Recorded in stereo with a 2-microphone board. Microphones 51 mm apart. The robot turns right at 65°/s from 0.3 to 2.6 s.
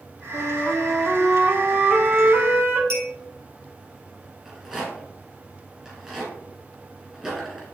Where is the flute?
120° left, 1.2 m; by 2.8 s 90° right, 1.2 m.